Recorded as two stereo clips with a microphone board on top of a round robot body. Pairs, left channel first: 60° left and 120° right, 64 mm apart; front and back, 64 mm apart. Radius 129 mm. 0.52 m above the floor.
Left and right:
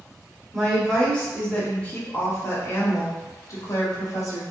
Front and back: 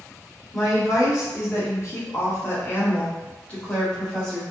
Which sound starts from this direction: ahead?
A woman speaking, at 0.5 s.